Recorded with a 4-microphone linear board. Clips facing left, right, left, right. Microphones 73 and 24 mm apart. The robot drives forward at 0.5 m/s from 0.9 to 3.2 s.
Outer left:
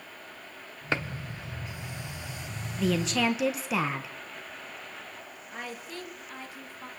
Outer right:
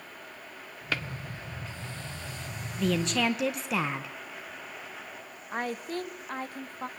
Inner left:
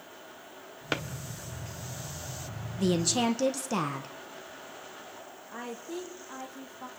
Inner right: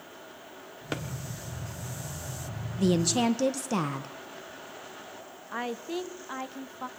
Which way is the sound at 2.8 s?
Centre (ahead or behind).